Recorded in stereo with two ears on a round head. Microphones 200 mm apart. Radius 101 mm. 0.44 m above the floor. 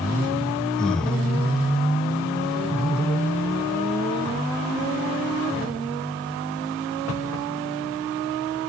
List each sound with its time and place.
0.8 s breathing: 5° left (ahead or behind), 0.5 m